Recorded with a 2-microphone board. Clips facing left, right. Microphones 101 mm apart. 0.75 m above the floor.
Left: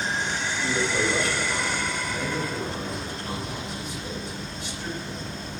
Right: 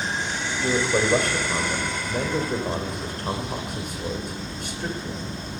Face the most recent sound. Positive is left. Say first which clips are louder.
# right 5 dB
turn(degrees=-55)  # may be behind; listen again after turning